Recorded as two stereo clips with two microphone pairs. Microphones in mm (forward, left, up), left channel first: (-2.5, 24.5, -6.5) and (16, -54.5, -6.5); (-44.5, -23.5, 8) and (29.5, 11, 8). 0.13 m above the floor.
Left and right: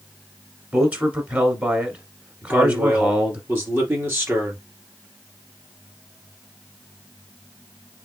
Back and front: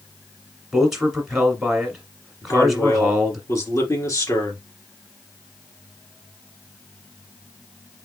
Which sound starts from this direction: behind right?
A man speaking, at 2.4 s.